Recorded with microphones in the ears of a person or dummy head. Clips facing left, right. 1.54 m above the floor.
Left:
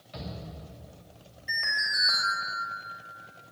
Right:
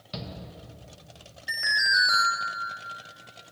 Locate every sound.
0.1 s a shout: 55° right (ahead or behind), 1.8 m
1.5 s an alarm: 15° right (ahead or behind), 2 m